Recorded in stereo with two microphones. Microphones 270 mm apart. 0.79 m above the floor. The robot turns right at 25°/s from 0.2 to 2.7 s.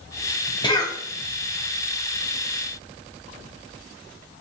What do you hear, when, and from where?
0.6 s a cough: 15° left (ahead or behind), 0.6 m; by 1.0 s 10° left (ahead or behind), 0.6 m